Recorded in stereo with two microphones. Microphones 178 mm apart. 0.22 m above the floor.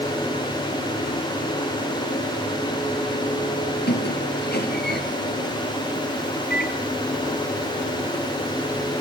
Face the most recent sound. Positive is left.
turn(degrees=65)  # may be behind; listen again after turning